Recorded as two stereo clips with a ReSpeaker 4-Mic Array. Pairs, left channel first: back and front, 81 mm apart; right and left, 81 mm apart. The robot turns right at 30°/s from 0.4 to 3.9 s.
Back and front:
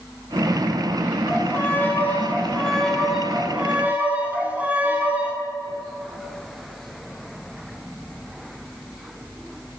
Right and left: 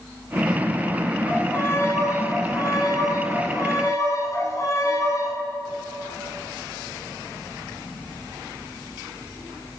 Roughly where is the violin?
Behind right.